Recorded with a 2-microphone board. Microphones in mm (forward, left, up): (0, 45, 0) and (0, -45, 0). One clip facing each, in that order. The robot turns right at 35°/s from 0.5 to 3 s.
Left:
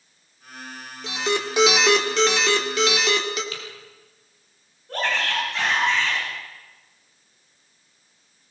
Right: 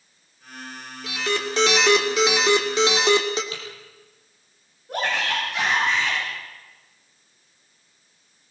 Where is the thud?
No thud in this recording.